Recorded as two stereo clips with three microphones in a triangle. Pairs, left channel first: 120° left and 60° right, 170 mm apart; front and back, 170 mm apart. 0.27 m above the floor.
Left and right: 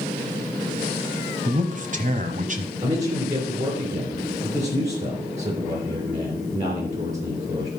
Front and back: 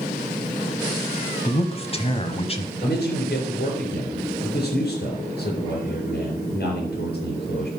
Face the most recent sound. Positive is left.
turn(degrees=-15)